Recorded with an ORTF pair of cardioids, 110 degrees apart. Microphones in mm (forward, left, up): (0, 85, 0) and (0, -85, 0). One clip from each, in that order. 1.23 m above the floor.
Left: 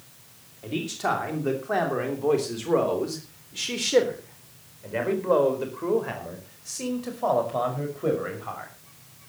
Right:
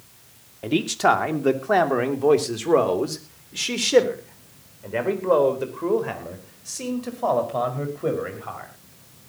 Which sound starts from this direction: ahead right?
A man speaking, at 0.6 s.